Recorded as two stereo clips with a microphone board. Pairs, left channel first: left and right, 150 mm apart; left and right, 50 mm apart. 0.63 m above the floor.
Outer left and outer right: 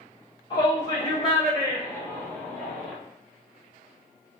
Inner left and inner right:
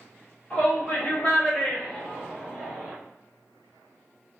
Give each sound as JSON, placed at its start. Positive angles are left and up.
{"t": 0.5, "sound": "a shout", "side_deg": 35, "distance_m": 1.7}